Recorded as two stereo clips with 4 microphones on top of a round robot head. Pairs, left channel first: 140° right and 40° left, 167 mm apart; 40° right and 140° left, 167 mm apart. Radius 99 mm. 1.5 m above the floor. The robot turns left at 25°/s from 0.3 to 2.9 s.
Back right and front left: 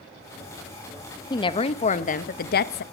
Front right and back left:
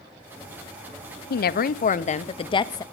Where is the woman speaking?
70° right, 0.7 m; by 2.8 s 110° right, 0.7 m.